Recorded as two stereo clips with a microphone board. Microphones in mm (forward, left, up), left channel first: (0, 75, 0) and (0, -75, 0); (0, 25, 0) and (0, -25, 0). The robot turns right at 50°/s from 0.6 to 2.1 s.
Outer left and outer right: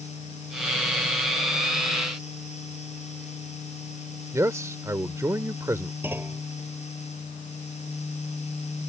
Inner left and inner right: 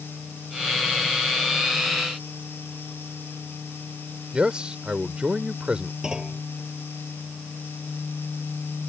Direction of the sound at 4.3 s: 20° right (ahead or behind).